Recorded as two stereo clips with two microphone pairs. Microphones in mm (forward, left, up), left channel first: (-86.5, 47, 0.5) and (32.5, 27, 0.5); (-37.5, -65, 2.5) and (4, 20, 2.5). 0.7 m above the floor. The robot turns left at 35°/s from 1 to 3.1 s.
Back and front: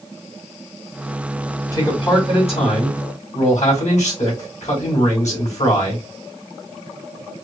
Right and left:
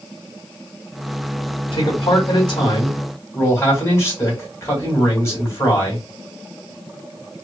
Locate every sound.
1.7 s a man speaking: 130° right, 2 m; by 6.0 s straight behind, 2 m